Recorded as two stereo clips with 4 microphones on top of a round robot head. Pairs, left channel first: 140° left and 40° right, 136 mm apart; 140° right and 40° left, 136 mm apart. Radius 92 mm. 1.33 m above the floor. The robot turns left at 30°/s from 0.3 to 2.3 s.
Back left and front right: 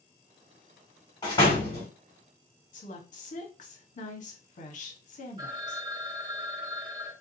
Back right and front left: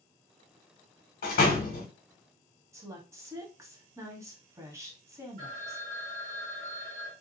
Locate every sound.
1.2 s a door slam: 160° right, 0.9 m; by 1.9 s 175° right, 0.9 m
2.7 s a woman speaking: 110° left, 0.9 m
5.4 s a phone ringing: 20° left, 1.5 m